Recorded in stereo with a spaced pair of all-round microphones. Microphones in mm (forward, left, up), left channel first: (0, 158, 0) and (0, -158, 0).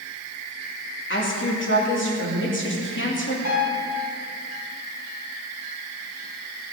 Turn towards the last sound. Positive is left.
turn(degrees=55)  # may be behind; listen again after turning